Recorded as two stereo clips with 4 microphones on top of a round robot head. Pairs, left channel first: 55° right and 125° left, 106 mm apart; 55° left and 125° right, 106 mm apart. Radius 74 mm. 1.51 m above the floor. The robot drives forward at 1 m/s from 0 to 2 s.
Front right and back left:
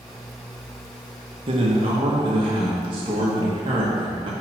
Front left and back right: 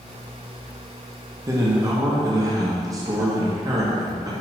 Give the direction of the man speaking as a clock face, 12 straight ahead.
6 o'clock.